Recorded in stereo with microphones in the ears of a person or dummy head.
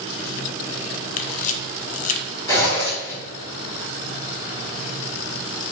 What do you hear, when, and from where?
1.2 s a camera shutter: 45° left (ahead or behind), 0.6 m
2.5 s a zipper: 25° left (ahead or behind), 1.6 m